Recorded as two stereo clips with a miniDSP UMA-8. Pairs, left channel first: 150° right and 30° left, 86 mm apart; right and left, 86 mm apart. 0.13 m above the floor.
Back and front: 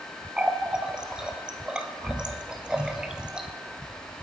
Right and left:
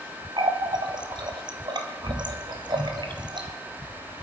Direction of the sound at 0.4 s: 110° left.